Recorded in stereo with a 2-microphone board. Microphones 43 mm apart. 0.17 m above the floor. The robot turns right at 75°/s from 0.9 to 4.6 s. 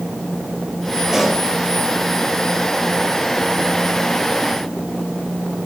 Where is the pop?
10° right (ahead or behind), 3.5 m; by 1.4 s 15° left (ahead or behind), 3.5 m.